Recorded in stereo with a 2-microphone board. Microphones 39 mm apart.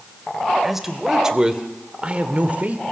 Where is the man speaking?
5° right (ahead or behind), 2 m; by 2.8 s 40° right (ahead or behind), 1.7 m.